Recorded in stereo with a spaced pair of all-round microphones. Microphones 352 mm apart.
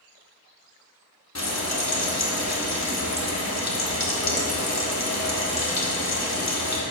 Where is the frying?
50° left (ahead or behind), 1.1 m.